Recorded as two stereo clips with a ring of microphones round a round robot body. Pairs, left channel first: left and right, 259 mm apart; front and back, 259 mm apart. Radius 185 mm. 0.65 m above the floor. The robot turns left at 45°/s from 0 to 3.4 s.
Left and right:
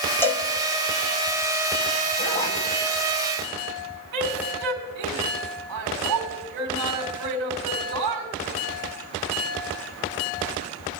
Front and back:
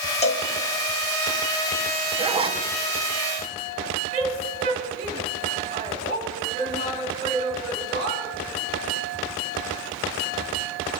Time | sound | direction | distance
0.2 | a cowbell | 20° left | 1.2 m
2.2 | a zipper | 135° left | 1.2 m
4.1 | a woman speaking | 115° right | 4 m